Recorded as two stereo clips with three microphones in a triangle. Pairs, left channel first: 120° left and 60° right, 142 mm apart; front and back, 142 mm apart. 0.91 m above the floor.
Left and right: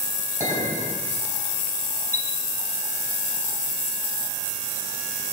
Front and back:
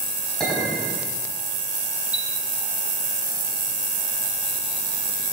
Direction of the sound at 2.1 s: 50° left.